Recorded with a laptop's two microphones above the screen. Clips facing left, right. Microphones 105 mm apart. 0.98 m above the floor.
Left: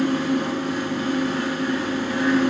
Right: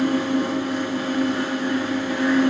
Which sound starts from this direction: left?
A fan, at 0.0 s.